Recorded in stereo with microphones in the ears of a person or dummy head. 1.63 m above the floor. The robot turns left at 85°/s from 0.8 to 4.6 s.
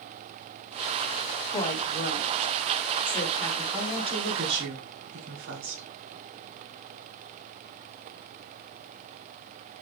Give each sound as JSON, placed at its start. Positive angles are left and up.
{"t": 1.5, "sound": "a woman speaking", "side_deg": 10, "distance_m": 3.0}
{"t": 3.7, "sound": "a woman speaking", "azimuth_deg": 0, "distance_m": 2.5}